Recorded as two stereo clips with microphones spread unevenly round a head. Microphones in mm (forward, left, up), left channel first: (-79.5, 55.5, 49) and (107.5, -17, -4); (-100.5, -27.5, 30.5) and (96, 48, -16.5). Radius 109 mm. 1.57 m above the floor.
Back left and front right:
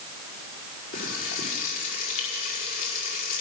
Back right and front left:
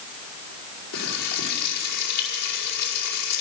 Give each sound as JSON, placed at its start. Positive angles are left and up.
{"t": 0.9, "sound": "frying", "azimuth_deg": -170, "distance_m": 5.0}